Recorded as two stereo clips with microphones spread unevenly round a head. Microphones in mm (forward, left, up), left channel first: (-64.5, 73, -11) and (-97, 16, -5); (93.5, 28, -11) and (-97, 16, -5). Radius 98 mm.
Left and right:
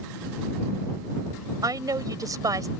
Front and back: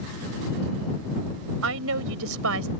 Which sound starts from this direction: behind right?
A woman speaking, at 1.6 s.